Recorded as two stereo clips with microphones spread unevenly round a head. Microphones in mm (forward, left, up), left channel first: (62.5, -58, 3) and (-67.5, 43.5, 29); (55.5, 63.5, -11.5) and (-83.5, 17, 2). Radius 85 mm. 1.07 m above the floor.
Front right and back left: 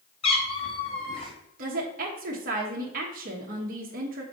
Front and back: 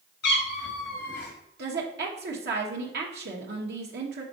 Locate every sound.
0.2 s a cat meowing: 25° left, 1.4 m
1.6 s a woman speaking: 175° right, 1.1 m